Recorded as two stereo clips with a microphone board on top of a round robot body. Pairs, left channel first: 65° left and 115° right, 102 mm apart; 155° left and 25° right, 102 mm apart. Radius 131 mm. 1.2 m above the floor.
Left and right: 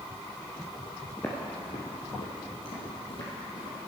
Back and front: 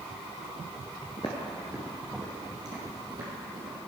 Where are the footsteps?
140° left, 1.2 m; by 3.8 s 25° left, 3.5 m.